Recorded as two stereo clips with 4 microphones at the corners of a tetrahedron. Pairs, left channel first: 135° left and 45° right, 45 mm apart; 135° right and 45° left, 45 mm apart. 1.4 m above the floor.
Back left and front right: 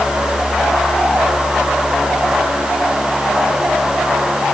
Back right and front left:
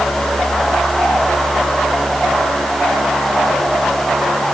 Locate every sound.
Only background noise.